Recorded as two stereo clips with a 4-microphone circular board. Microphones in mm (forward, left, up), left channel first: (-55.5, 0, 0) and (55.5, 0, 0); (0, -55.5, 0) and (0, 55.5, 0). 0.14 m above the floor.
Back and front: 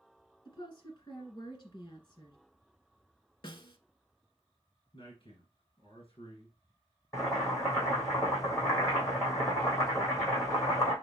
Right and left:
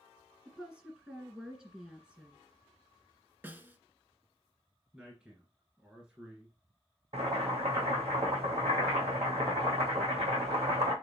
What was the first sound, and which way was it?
A woman speaking, 170° left.